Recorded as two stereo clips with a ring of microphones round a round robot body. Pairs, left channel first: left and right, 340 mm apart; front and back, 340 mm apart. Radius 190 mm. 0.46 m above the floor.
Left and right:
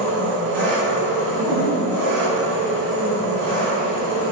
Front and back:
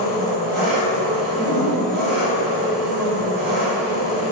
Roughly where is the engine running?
Behind right.